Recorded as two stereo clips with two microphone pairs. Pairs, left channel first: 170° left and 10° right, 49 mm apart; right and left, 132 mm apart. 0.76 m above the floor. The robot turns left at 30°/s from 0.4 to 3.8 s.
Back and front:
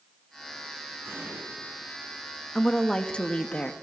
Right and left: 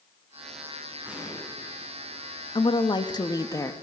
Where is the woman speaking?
110° right, 1.1 m; by 3.7 s 145° right, 1.1 m.